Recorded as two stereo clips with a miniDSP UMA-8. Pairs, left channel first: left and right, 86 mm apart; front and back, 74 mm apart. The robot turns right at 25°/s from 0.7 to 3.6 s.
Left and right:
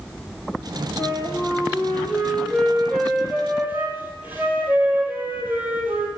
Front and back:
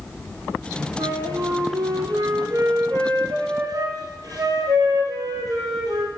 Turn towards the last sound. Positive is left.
turn(degrees=-155)